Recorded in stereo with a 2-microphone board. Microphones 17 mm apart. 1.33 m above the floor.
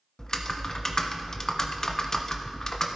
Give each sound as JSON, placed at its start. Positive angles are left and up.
{"t": 0.2, "sound": "typing on a keyboard", "side_deg": 35, "distance_m": 0.8}